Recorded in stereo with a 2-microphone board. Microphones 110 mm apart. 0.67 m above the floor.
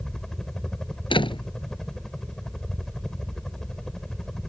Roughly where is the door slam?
Left.